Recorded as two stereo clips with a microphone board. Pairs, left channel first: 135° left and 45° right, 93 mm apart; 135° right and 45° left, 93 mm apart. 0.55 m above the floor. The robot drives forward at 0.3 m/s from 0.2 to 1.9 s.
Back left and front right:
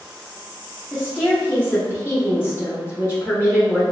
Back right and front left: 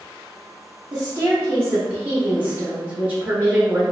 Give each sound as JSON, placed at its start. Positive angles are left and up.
{"t": 0.9, "sound": "a woman speaking", "azimuth_deg": 60, "distance_m": 0.8}